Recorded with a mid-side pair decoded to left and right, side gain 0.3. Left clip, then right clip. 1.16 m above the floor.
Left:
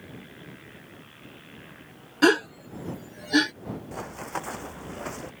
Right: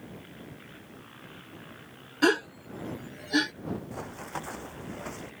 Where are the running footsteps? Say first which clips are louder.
Left 4 dB; 40° left.